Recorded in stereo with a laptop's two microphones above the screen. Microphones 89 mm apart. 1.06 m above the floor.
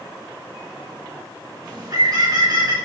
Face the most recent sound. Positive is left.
turn(degrees=-45)  # may be behind; listen again after turning